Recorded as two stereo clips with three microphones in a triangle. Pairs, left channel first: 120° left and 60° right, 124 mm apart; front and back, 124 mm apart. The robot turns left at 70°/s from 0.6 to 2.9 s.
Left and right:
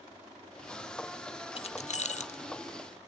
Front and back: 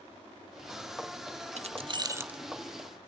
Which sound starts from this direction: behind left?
Keys jangling, at 1.6 s.